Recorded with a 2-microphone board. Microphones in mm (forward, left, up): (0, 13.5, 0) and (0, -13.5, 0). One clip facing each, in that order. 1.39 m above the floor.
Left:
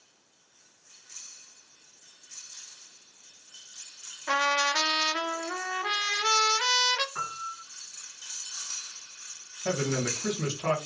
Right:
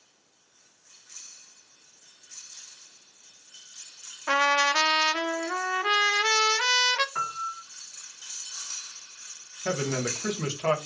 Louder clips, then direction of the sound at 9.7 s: Even; 35° right (ahead or behind).